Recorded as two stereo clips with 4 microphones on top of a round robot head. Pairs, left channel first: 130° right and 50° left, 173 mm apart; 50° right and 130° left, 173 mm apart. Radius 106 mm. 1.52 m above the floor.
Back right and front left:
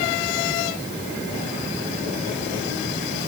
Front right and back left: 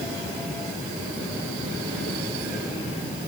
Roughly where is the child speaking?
I don't hear a child speaking.